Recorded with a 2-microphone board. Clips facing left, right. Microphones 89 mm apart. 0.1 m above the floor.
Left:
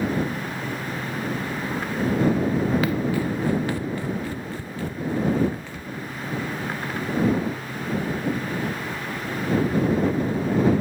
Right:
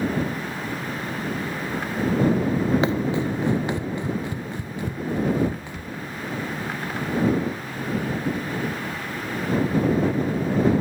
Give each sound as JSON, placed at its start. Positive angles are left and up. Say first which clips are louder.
{"t": 2.8, "sound": "running footsteps", "louder": "right 1 dB", "side_deg": -25}